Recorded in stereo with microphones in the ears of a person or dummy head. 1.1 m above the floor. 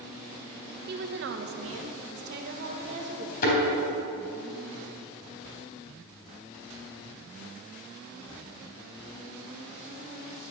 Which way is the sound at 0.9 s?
50° right (ahead or behind).